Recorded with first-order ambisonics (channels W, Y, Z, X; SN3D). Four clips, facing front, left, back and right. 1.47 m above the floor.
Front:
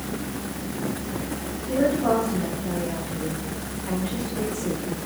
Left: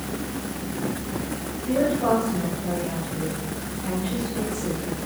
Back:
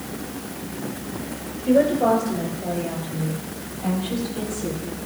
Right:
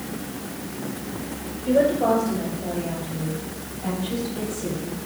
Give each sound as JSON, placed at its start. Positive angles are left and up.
{"t": 1.7, "sound": "a woman speaking", "azimuth_deg": -155, "distance_m": 6.0}